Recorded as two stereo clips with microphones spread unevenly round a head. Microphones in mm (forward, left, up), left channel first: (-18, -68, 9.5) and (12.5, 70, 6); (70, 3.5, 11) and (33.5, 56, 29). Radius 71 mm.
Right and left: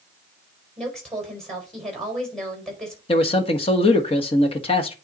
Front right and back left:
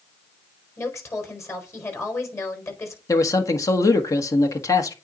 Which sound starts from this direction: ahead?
A woman speaking, at 0.8 s.